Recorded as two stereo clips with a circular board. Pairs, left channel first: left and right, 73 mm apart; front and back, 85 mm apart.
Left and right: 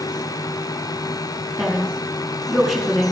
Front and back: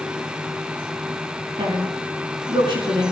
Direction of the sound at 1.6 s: 175° right.